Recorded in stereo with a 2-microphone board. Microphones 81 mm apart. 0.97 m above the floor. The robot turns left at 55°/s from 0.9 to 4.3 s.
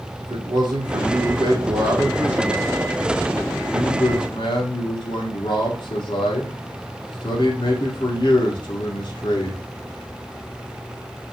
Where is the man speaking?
85° right, 2.5 m; by 9.6 s 90° left, 2.5 m.